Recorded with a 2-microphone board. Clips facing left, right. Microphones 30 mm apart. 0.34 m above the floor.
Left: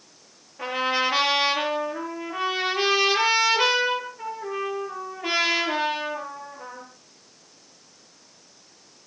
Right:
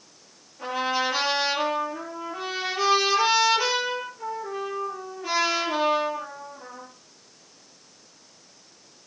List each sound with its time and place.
0.6 s a trumpet: 40° left (ahead or behind), 9.5 m